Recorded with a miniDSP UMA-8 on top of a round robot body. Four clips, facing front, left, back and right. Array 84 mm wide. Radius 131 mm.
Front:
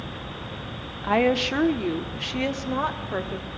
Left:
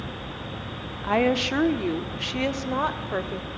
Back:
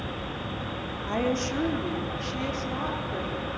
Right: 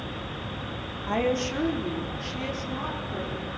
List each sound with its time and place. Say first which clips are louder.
1.0 s a woman speaking: left 4 dB, front 6 dB; 35° left, 1.4 m; by 3.5 s 65° left, 2.5 m